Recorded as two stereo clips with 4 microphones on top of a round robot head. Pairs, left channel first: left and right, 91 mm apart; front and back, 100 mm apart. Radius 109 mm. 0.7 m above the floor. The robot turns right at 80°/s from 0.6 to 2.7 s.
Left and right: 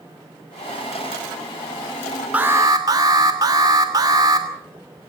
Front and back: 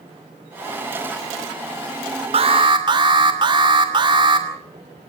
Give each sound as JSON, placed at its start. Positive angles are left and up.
{"t": 2.3, "sound": "an alarm", "azimuth_deg": -165, "distance_m": 2.5}